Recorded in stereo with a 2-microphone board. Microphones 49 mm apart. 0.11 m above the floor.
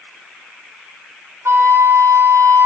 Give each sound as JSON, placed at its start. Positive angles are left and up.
{"t": 1.4, "sound": "a flute", "side_deg": -70, "distance_m": 0.7}